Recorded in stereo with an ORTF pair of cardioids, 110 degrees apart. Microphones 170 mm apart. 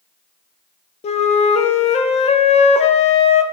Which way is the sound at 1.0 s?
45° left.